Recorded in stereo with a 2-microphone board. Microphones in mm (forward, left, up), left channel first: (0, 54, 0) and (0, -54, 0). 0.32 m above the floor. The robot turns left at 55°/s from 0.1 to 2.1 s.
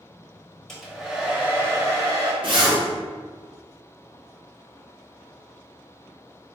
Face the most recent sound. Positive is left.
turn(degrees=-50)  # may be behind; listen again after turning